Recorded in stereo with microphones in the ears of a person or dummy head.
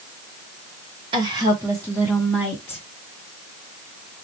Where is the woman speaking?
25° right (ahead or behind), 1.6 m; by 2.8 s 15° left (ahead or behind), 1.7 m.